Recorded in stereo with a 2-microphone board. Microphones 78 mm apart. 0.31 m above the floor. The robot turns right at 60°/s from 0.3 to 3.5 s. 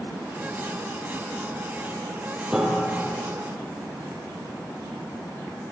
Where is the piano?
10° right, 2.5 m; by 3.3 s 40° left, 2.5 m.